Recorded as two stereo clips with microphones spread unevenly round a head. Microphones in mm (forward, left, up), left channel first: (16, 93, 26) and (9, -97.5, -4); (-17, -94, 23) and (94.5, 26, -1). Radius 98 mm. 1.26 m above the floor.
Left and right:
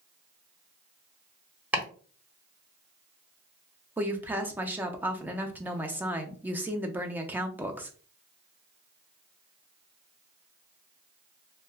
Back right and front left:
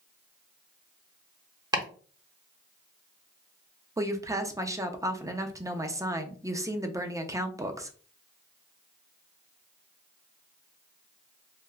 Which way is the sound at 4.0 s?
15° right.